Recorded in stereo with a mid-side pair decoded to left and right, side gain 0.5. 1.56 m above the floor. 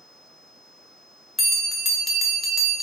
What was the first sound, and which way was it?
A bell, 30° left.